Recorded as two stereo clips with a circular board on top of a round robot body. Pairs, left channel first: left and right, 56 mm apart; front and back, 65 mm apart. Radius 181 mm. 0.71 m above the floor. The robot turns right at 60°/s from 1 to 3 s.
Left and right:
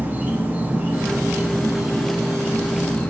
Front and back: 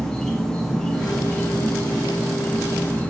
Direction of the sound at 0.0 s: 75° right.